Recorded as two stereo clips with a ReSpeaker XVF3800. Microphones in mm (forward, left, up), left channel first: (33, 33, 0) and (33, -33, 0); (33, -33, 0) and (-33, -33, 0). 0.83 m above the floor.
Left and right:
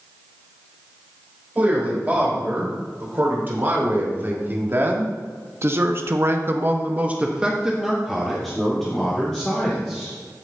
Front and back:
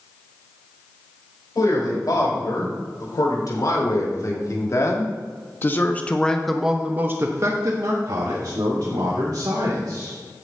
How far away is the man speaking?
About 5 m.